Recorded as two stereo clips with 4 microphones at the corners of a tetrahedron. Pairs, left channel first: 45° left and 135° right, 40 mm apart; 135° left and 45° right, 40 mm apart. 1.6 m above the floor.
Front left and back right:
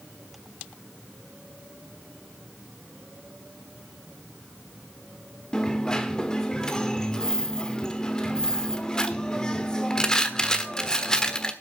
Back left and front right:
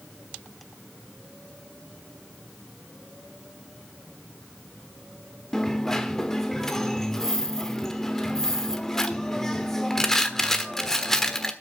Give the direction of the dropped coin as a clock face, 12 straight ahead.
10 o'clock.